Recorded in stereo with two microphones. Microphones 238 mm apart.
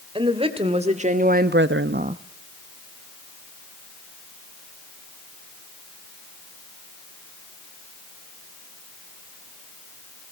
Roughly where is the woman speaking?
Right.